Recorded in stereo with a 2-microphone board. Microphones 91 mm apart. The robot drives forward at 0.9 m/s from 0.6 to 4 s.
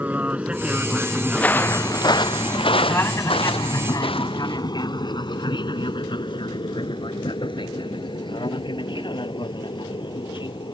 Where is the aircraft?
15° right (ahead or behind); by 10.7 s 60° left (ahead or behind).